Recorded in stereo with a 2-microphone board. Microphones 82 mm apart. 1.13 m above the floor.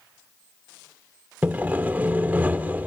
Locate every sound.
1.4 s sawing: 20° right (ahead or behind), 1.1 m